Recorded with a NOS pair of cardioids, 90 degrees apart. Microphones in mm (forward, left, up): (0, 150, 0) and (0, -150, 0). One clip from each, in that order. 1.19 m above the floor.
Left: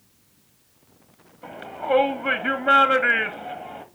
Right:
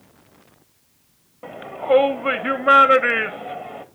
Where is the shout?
20° right, 2 m.